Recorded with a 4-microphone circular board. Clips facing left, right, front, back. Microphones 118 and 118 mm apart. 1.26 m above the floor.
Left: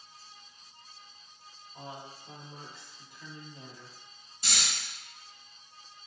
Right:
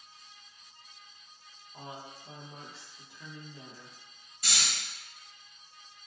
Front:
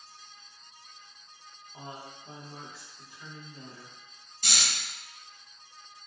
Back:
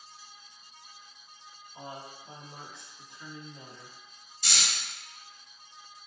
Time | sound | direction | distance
1.7 | a woman speaking | 45° right | 0.9 m
4.4 | snoring | 35° left | 1.0 m